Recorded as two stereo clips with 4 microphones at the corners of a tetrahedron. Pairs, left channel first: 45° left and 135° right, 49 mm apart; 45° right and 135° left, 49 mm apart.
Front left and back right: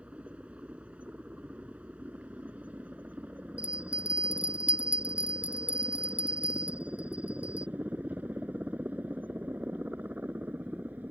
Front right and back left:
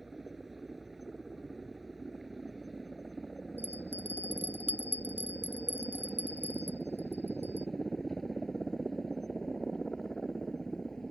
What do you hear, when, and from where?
0.0 s a helicopter: 145° right; by 11.1 s 120° right
3.6 s a bell: 165° left